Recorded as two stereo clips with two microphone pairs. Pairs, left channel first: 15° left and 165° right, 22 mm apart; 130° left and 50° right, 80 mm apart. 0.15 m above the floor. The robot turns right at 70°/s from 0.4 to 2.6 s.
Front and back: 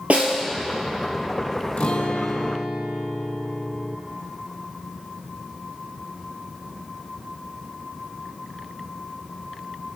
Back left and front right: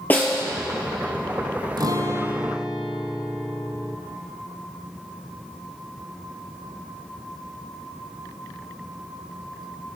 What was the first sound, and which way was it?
A snare drum, 165° right.